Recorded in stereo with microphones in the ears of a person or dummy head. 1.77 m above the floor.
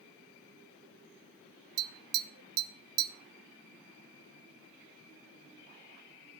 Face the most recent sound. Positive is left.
turn(degrees=-70)  # may be behind; listen again after turning